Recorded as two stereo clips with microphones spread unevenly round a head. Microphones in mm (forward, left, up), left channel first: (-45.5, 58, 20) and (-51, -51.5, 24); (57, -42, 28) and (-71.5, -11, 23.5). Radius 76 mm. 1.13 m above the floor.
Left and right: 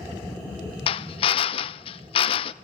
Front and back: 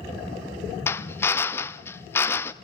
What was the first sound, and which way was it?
A drill, 60° left.